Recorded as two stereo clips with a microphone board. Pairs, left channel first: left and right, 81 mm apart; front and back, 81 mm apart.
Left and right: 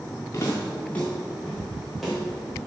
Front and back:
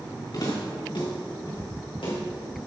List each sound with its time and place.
0.3 s footsteps: 35° left, 3.5 m; by 2.2 s 5° right, 4 m